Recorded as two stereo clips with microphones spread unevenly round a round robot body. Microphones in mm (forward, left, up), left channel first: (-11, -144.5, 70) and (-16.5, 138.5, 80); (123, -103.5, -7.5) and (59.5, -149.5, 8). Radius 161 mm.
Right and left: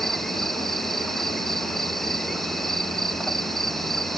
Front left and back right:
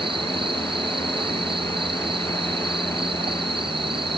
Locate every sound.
0.0 s an insect: straight behind